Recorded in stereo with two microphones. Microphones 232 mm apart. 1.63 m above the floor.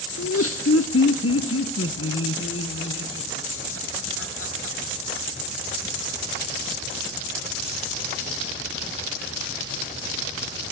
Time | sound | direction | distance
0.2 | laughter | 80° left | 1.0 m